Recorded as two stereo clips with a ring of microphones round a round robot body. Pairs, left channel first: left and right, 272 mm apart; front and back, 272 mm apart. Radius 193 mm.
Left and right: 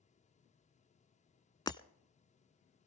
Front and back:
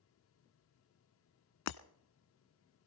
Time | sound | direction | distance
1.7 | breaking glass | 15° left | 0.6 m